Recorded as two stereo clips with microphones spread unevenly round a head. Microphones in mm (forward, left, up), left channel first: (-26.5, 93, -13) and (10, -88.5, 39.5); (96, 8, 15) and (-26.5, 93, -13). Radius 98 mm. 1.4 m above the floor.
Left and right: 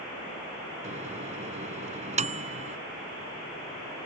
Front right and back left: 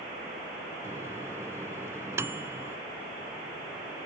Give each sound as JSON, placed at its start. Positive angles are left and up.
{"t": 0.8, "sound": "a microwave", "azimuth_deg": -135}